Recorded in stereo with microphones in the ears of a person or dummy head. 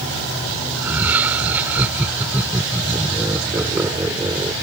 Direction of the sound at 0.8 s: 10° right (ahead or behind).